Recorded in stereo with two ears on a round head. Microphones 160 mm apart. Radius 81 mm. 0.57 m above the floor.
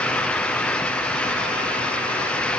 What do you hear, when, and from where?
Only background noise.